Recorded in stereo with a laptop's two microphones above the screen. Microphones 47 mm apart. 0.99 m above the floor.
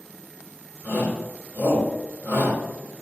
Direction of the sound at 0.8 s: 45° left (ahead or behind).